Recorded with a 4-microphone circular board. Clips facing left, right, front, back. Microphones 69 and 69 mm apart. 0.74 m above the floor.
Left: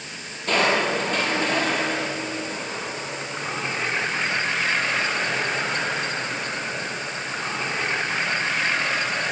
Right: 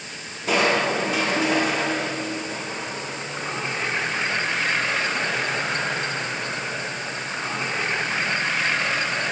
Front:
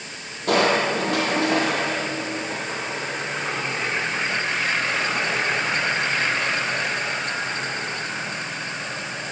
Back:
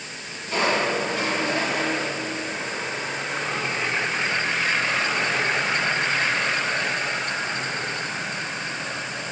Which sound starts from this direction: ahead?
Crushing, at 0.5 s.